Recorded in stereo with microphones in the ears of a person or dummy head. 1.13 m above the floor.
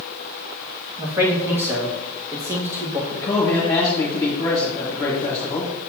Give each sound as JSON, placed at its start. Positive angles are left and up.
{"t": 1.0, "sound": "a man speaking", "side_deg": -10, "distance_m": 1.5}
{"t": 3.1, "sound": "a man speaking", "side_deg": 25, "distance_m": 1.8}